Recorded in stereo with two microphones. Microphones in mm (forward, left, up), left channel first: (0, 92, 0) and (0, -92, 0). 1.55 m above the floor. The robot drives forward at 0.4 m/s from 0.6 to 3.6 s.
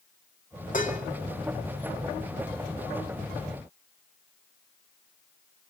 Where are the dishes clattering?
45° left (ahead or behind), 2 m.